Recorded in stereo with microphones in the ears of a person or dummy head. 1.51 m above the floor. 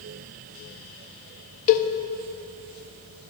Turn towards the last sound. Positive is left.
turn(degrees=45)  # may be behind; listen again after turning